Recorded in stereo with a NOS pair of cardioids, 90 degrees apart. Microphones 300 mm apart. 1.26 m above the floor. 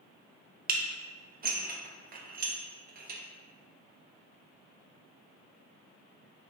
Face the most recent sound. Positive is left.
turn(degrees=-30)